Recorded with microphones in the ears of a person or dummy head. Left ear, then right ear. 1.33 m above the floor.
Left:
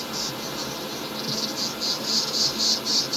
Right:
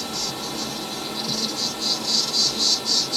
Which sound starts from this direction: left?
An insect, at 0.0 s.